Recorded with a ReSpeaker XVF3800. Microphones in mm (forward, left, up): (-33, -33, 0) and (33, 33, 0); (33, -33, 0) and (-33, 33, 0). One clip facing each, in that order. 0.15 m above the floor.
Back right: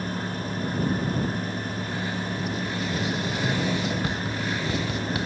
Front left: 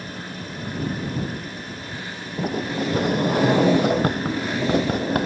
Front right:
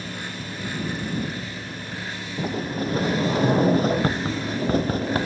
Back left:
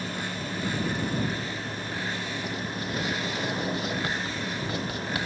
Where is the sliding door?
5° left.